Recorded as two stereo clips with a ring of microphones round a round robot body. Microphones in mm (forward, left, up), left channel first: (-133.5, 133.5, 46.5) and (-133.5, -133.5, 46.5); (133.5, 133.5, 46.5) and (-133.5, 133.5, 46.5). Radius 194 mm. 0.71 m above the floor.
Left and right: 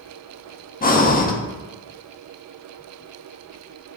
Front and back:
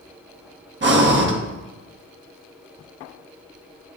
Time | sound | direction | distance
0.8 | breathing | 145° left | 1.5 m